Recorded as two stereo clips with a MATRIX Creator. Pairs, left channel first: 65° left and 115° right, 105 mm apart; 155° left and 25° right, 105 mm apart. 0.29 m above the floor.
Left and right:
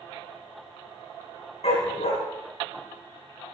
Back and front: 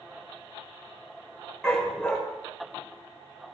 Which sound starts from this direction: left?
A dog barking, at 1.6 s.